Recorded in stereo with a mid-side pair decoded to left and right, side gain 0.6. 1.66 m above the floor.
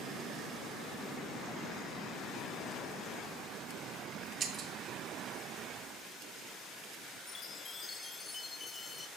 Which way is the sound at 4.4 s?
45° right.